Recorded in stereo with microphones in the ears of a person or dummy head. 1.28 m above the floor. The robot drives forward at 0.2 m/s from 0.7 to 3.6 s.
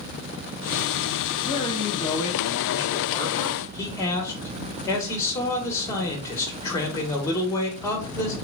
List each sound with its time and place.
1.4 s a man speaking: 20° left (ahead or behind), 0.9 m; by 8.3 s 15° left (ahead or behind), 1.3 m